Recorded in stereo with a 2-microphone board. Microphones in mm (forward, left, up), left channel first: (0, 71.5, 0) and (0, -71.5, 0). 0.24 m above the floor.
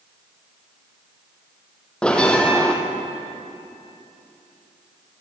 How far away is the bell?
About 3.5 m.